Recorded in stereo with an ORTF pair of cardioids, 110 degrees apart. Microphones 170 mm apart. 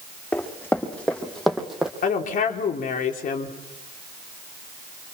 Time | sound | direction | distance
0.3 | running footsteps | 10° left | 5.5 m
2.0 | a woman speaking | 55° left | 4 m